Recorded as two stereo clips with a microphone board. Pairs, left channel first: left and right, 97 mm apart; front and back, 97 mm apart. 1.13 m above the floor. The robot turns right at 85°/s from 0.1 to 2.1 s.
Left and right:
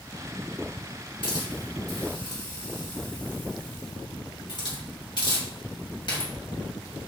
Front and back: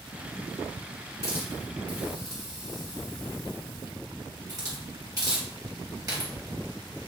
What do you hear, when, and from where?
1.2 s a hiss: 55° left, 1.8 m; by 6.3 s 130° left, 1.8 m